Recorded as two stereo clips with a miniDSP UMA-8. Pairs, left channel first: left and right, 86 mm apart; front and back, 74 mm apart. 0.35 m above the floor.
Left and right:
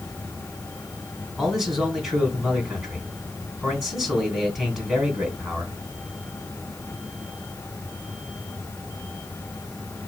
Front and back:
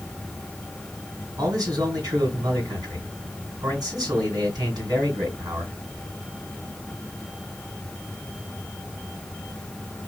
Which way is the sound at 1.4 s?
175° right.